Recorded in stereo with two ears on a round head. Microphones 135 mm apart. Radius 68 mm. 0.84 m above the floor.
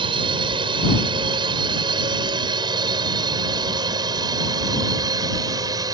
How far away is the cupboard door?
No cupboard door in this recording.